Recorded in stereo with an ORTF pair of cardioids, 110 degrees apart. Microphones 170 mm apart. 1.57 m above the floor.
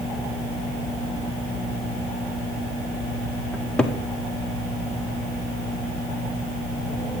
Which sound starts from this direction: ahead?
A cupboard door, at 3.5 s.